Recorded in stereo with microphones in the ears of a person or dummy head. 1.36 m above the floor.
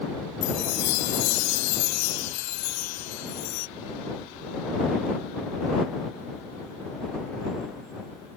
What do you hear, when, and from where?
0.4 s a chime: 80° left